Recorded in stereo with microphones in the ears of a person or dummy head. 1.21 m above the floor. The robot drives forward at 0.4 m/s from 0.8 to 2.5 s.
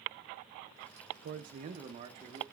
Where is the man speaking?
50° right (ahead or behind), 0.6 m; by 2.4 s 30° right (ahead or behind), 1.0 m.